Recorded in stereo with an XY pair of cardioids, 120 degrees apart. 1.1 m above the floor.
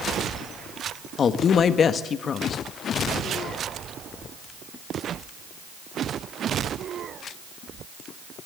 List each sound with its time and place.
1.2 s a woman speaking: 45° left, 1.5 m